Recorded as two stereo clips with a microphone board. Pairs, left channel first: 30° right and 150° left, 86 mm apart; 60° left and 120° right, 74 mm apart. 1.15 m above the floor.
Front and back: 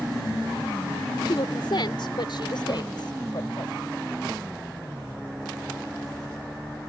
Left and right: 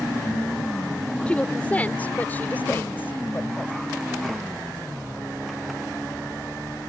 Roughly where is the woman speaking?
Ahead.